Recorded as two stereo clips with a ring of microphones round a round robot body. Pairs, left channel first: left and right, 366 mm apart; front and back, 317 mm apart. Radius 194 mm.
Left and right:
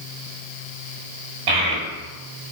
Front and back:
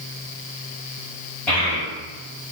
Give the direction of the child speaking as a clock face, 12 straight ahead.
3 o'clock.